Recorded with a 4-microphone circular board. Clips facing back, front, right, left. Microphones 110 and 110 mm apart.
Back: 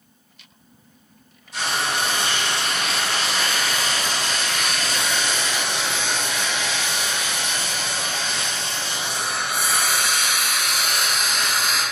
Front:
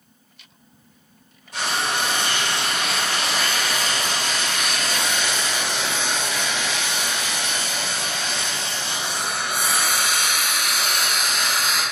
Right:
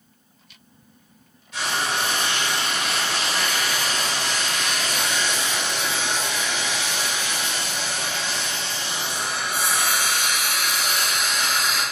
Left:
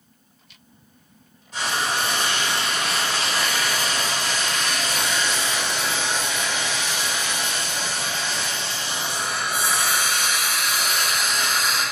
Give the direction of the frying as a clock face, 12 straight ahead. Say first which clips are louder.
Even, left 1 dB; 11 o'clock.